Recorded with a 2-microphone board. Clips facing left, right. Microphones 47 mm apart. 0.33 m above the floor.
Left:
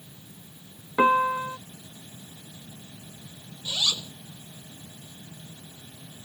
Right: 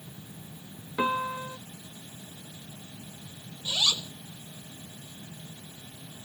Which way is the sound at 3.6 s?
25° right (ahead or behind).